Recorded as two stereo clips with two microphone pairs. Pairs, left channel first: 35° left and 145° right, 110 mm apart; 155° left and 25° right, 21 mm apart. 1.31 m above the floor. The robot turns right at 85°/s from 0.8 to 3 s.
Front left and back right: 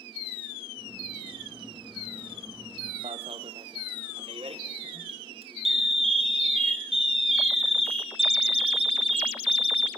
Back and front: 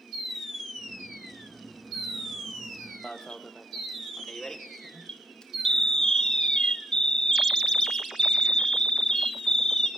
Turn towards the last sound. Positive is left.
turn(degrees=-160)